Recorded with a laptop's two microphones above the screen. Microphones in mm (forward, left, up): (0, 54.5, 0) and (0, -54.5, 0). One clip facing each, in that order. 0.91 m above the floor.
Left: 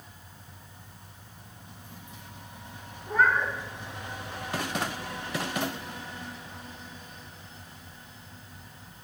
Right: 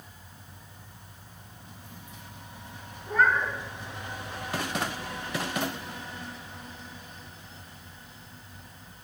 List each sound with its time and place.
3.1 s a cat meowing: centre (ahead or behind), 1.8 m